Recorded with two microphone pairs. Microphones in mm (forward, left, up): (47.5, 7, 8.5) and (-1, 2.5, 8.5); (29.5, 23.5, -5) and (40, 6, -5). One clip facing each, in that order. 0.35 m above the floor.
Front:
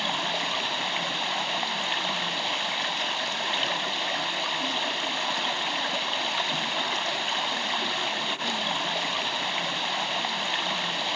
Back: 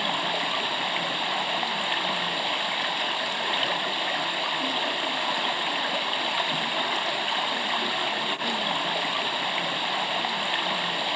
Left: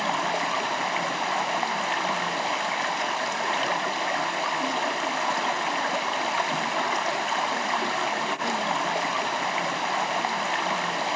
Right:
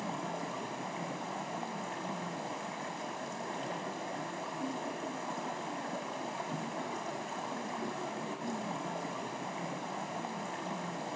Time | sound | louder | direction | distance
0.0 | running water | back 2 dB, left 13 dB | 100° left | 1.3 m